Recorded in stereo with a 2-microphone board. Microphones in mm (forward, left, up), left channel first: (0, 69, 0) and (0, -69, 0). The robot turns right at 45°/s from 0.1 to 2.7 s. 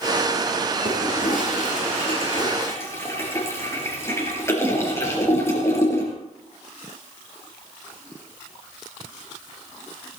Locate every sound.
0.8 s a toilet flushing: 75° left (ahead or behind), 4.5 m; by 6.1 s 20° left (ahead or behind), 4.5 m